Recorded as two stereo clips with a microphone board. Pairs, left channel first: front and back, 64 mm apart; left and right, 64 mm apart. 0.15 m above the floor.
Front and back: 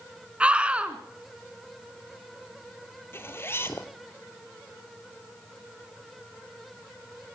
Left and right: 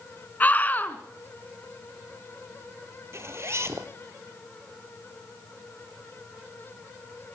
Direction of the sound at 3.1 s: 50° right.